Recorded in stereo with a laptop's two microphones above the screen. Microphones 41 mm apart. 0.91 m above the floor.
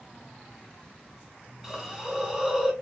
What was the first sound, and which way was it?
A hiss, 10° right (ahead or behind).